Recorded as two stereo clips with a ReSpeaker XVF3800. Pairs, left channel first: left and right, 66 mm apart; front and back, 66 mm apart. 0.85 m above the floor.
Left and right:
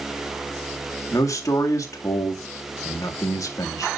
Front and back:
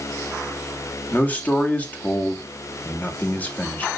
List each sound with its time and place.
1.1 s a man speaking: 65° left, 1.8 m